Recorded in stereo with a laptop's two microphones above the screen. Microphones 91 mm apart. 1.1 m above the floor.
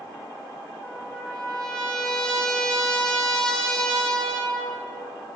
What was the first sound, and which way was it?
A trumpet, 10° left (ahead or behind).